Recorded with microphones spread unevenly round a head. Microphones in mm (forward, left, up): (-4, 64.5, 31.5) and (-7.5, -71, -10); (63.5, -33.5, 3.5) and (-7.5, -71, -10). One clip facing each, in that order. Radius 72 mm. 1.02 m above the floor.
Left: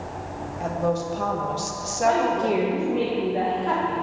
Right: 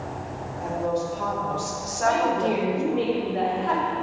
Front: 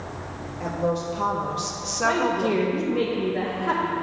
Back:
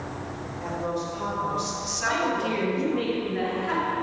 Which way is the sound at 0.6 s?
65° left.